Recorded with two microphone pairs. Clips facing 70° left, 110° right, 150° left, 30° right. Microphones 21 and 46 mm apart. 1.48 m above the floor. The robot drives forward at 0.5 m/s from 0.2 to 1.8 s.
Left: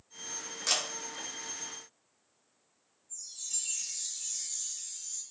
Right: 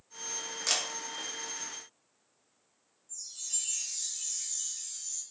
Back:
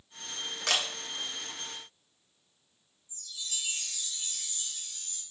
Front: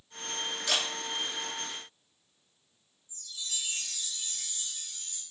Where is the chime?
135° right, 2.5 m.